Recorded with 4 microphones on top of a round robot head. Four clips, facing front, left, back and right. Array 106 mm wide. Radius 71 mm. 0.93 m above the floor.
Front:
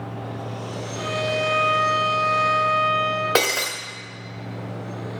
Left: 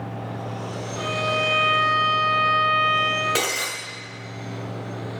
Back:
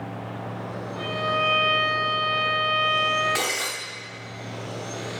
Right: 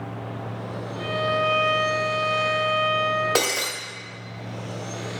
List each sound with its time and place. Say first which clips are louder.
0.9 s a violin: right 1 dB, front 1 dB; 160° right, 4 m
3.4 s breaking glass: right 2 dB, front 6 dB; 20° right, 1.7 m